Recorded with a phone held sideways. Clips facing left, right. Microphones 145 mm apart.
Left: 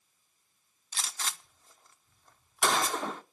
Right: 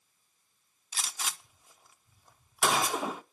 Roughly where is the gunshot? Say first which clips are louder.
Even; centre.